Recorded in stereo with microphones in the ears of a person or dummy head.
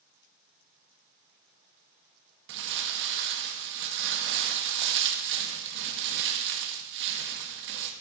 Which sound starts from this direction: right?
Crumpling, at 2.5 s.